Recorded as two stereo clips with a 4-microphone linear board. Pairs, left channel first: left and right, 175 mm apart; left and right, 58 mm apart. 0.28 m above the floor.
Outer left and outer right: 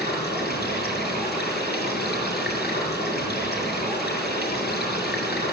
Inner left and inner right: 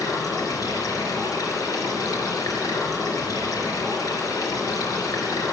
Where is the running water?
70° left (ahead or behind), 4.5 m.